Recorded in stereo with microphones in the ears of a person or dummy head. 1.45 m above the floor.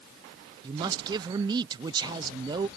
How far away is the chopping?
I don't hear chopping.